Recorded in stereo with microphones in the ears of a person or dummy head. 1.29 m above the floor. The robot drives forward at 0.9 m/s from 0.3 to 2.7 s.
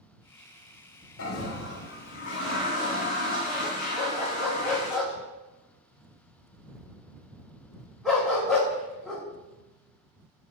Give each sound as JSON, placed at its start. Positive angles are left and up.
{"t": 1.2, "sound": "a toilet flushing", "side_deg": 70, "distance_m": 1.7}
{"t": 4.0, "sound": "a dog barking", "side_deg": 5, "distance_m": 1.2}